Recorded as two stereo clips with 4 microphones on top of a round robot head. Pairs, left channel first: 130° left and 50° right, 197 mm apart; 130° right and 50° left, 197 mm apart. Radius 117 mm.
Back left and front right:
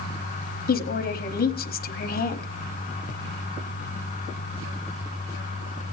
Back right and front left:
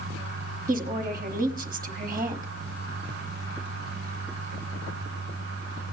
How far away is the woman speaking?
About 1.2 m.